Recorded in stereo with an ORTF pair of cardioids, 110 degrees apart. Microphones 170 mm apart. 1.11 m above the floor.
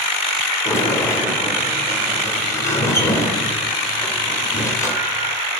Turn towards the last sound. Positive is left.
turn(degrees=15)